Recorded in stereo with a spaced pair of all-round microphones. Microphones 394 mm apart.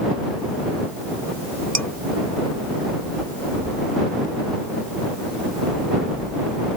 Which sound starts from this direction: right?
Dishes clattering, at 1.8 s.